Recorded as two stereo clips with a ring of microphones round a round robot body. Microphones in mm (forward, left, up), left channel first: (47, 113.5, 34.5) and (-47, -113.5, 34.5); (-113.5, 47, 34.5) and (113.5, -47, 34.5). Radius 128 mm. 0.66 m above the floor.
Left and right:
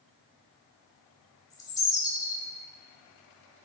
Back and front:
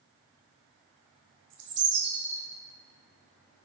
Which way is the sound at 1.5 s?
10° right.